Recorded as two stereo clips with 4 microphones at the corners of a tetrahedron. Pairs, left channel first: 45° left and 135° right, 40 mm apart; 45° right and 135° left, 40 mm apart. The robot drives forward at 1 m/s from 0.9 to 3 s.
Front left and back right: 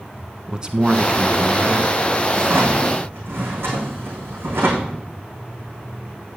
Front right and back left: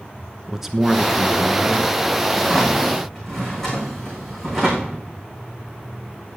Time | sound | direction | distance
0.5 | a man speaking | 150° right | 1.3 m
2.3 | a drawer | 120° right | 5.5 m